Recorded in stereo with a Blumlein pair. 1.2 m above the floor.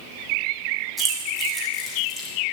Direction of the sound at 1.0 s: Straight ahead.